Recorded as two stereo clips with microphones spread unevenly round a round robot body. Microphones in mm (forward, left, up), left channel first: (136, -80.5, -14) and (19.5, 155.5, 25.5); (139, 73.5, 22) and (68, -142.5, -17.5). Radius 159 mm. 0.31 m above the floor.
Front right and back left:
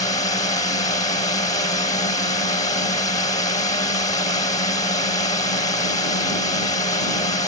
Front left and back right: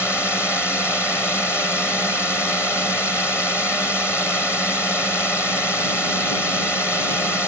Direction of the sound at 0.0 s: 15° right.